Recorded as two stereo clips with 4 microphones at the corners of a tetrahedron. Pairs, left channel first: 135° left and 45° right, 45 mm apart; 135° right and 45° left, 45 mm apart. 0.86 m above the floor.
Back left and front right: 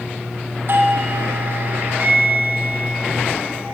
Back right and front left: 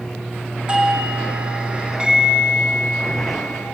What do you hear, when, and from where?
0.7 s a doorbell: 25° right, 2.5 m